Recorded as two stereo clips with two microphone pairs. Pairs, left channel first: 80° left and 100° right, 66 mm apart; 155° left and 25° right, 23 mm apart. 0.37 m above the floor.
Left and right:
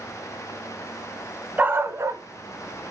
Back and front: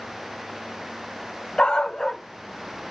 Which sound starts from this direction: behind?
A dog barking, at 1.6 s.